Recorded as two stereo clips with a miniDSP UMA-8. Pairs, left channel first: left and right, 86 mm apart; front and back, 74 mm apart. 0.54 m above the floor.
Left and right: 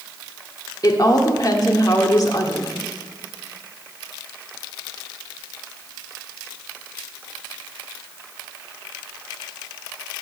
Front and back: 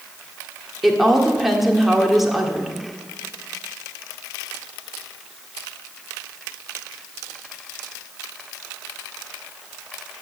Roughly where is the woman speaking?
Left.